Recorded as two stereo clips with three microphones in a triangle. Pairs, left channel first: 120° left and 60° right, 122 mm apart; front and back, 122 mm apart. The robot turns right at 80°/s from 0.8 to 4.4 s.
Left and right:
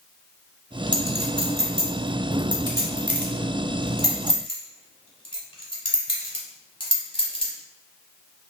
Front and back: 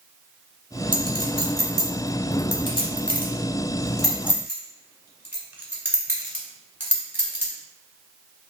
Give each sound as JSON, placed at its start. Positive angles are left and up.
{"t": 0.9, "sound": "a clink", "azimuth_deg": -165, "distance_m": 0.8}